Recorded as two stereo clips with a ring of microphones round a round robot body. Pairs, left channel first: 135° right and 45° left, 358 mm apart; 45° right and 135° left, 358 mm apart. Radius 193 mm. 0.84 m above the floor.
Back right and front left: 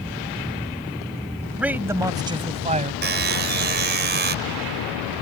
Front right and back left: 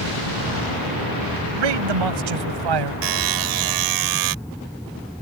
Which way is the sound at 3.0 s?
105° left.